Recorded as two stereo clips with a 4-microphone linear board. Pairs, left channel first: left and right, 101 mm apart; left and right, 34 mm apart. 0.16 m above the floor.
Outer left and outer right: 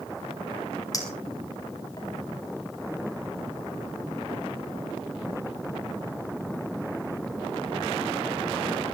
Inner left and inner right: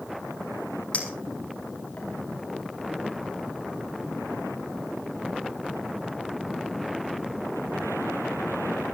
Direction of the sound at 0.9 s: 35° left (ahead or behind).